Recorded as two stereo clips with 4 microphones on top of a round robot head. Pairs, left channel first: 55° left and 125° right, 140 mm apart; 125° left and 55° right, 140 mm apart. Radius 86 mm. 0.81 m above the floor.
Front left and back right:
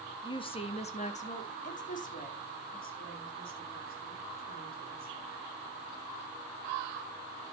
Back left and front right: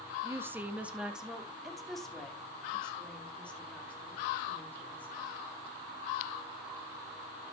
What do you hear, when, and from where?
0.2 s a woman speaking: 10° left, 1.4 m; by 5.3 s 45° left, 5 m